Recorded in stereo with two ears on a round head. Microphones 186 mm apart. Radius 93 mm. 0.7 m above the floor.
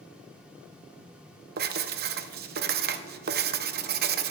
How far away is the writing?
About 0.5 m.